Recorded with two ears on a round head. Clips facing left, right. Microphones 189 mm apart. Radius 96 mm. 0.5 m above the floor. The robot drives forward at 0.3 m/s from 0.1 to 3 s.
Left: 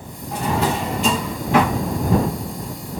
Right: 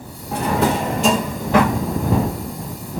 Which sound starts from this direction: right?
A drawer, at 0.3 s.